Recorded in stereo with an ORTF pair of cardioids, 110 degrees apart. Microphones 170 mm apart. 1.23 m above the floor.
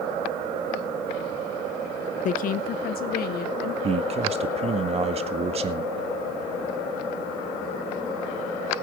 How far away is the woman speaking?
About 0.6 m.